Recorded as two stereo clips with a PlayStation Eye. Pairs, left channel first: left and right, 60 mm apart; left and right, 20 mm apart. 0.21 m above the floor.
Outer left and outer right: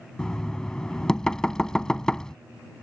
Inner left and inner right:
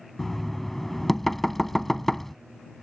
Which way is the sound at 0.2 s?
10° left (ahead or behind).